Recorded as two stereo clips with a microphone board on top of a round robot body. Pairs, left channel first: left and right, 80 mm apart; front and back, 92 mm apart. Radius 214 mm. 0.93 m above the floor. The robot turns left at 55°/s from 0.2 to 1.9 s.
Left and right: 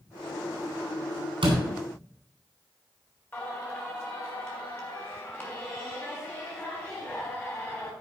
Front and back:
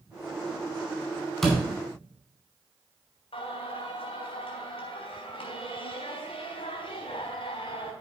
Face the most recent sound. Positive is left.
turn(degrees=25)